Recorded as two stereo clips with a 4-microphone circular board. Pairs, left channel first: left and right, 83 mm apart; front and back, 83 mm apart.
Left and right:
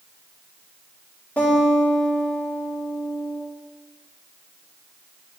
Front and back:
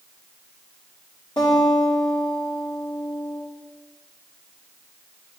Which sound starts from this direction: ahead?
A guitar, at 1.4 s.